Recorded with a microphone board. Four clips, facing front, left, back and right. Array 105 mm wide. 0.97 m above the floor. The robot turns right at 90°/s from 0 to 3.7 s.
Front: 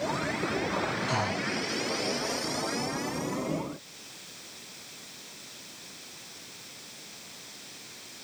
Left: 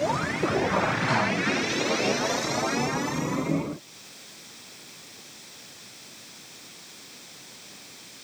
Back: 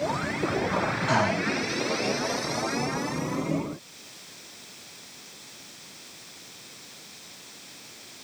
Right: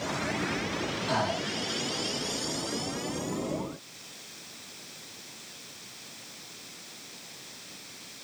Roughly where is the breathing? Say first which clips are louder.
Left 4 dB, back 6 dB; behind left.